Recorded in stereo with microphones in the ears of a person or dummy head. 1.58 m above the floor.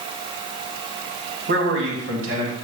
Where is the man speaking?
65° right (ahead or behind), 2 m; by 2.5 s 80° right, 2.5 m.